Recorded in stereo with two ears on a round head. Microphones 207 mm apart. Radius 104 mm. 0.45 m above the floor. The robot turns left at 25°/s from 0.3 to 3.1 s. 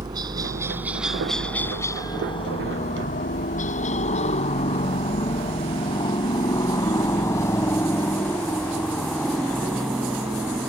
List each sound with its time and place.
0.0 s a helicopter: 20° right (ahead or behind); by 10.7 s 5° right (ahead or behind)